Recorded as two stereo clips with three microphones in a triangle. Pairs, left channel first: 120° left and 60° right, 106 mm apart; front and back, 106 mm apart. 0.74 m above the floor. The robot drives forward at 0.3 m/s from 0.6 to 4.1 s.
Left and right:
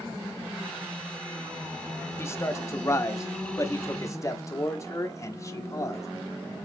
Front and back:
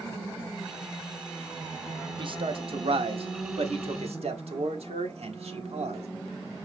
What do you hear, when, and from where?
2.2 s a man speaking: straight behind, 0.7 m